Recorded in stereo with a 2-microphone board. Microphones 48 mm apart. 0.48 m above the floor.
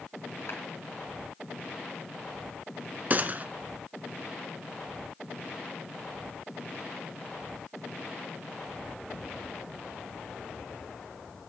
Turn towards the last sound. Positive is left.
turn(degrees=-40)  # may be behind; listen again after turning